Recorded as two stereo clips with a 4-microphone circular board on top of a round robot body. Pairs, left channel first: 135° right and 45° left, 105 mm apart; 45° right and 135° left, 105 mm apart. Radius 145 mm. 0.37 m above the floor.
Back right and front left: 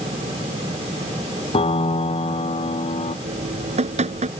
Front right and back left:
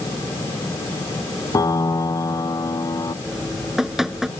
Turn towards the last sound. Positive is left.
turn(degrees=50)